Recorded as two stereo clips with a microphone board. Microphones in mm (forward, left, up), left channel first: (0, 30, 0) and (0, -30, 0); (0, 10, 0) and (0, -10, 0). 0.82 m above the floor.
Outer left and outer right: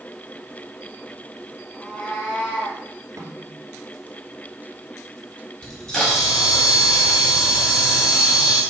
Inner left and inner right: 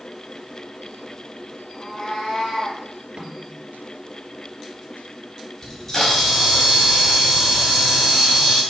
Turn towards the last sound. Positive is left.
turn(degrees=15)  # may be behind; listen again after turning